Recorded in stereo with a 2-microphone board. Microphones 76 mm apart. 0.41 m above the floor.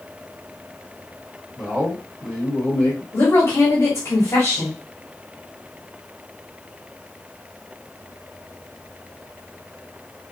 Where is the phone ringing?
No phone ringing in this recording.